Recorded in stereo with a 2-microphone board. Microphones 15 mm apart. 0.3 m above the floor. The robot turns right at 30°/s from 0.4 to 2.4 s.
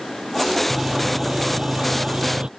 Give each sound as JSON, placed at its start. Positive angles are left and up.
{"t": 0.7, "sound": "sawing", "azimuth_deg": -150}